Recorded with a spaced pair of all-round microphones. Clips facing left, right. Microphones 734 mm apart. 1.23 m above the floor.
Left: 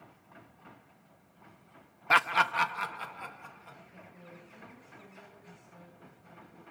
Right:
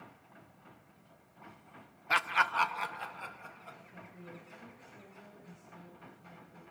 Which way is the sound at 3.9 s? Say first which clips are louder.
Right 3 dB; 45° right (ahead or behind).